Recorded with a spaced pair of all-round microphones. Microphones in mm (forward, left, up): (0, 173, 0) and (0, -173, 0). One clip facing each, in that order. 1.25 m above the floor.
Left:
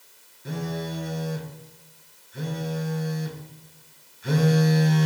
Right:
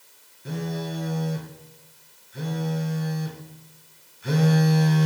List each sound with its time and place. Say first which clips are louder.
0.5 s a phone buzzing: right 1 dB; centre (ahead or behind), 1.0 m